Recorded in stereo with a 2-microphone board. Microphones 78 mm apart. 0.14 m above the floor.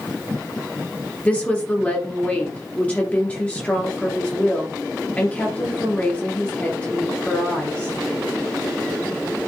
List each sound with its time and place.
1.2 s a woman speaking: 20° left (ahead or behind), 2.5 m